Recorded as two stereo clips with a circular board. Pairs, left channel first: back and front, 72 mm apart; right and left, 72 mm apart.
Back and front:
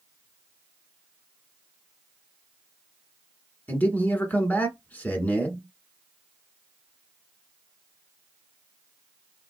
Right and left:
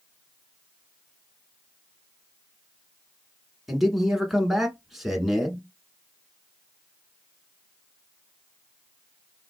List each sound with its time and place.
3.7 s a man speaking: 175° left, 1.1 m